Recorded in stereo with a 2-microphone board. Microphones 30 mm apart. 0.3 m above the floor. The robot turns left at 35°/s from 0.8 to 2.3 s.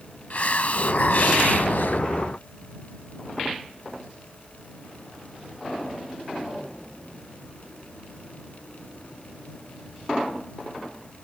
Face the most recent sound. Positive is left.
turn(degrees=70)